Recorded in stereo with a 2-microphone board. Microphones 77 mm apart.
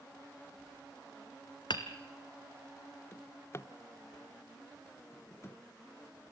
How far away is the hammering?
About 1.4 m.